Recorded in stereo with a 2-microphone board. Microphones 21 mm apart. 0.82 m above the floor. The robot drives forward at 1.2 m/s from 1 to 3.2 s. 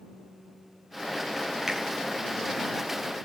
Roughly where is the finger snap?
Centre.